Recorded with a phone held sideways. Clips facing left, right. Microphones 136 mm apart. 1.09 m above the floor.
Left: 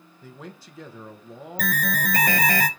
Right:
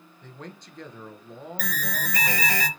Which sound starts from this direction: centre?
A man speaking, at 0.2 s.